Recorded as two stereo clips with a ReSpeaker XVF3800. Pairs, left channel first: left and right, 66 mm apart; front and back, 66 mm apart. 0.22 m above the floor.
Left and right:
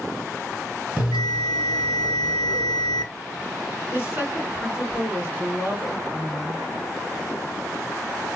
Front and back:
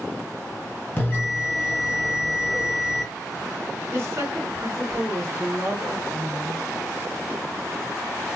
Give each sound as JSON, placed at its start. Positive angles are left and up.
{"t": 1.0, "sound": "a bell", "azimuth_deg": -45, "distance_m": 1.8}
{"t": 3.9, "sound": "a woman speaking", "azimuth_deg": -140, "distance_m": 2.5}